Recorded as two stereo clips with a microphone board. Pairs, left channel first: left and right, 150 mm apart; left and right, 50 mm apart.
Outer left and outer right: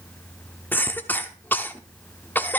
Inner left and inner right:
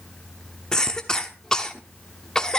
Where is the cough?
15° left (ahead or behind), 0.9 m.